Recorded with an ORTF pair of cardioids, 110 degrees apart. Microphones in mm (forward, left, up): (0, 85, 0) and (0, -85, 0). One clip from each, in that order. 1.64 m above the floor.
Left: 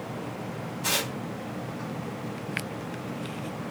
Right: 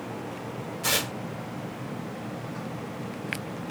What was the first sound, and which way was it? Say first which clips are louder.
Tearing paper: right 1 dB; 50° right.